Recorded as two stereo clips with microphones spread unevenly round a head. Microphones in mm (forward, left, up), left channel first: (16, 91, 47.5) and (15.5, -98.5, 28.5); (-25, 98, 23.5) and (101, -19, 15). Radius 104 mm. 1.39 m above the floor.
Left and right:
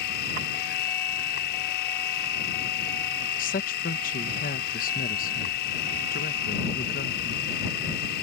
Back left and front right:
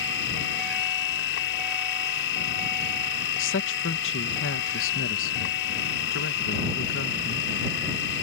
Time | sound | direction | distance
0.0 | a machine running | 130° left | ?
3.4 | a woman speaking | 140° left | ?